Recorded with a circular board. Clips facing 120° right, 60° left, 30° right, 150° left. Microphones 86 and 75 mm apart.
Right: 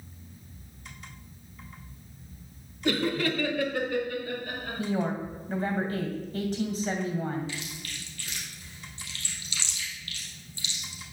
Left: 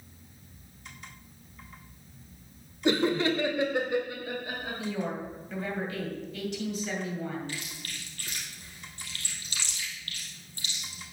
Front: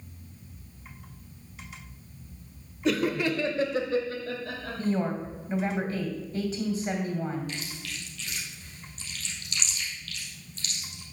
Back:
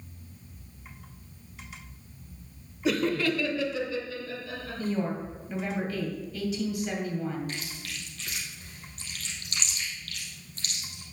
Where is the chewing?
105° left, 3 m.